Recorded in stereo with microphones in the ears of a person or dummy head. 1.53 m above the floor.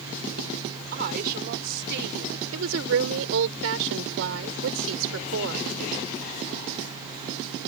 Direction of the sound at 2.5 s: 70° right (ahead or behind).